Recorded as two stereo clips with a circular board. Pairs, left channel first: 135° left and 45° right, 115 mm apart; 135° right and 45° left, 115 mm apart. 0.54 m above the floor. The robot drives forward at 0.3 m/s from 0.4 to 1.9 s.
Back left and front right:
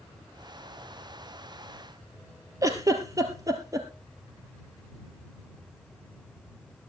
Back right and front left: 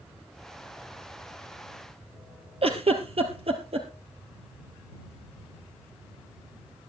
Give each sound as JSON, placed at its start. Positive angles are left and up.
{"t": 2.6, "sound": "a giggle", "azimuth_deg": 15, "distance_m": 2.0}